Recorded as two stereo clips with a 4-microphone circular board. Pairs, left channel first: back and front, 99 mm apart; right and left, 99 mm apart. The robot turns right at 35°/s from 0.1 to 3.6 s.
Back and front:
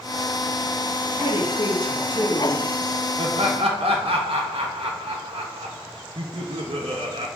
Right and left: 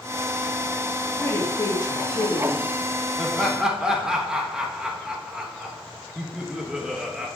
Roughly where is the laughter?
Ahead.